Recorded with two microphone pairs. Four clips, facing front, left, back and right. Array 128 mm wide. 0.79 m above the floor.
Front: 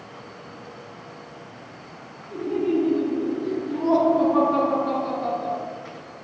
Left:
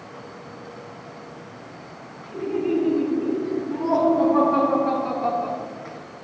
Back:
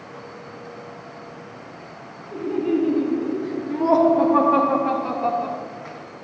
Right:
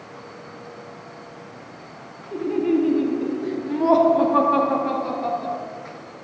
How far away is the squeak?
I don't hear a squeak.